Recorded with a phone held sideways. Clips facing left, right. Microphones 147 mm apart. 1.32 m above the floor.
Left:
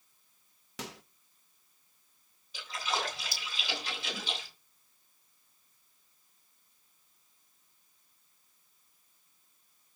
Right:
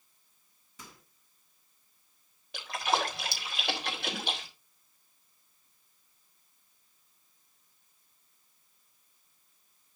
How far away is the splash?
About 5.5 m.